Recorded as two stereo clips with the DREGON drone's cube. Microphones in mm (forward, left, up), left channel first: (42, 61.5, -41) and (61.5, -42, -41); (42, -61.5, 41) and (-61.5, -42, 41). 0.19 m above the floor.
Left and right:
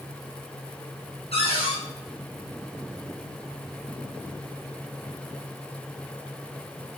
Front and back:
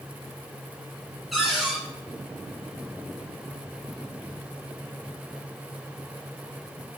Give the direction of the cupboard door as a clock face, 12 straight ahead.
9 o'clock.